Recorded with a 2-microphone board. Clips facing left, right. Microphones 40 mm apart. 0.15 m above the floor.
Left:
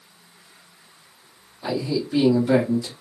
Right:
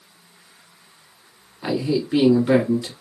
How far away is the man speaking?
About 1.5 m.